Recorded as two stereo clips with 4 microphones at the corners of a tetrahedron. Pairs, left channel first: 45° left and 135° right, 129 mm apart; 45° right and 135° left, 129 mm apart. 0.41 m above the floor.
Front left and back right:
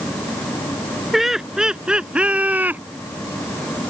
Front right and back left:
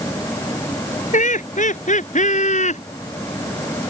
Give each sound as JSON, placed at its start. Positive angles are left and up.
{"t": 1.1, "sound": "laughter", "azimuth_deg": -45}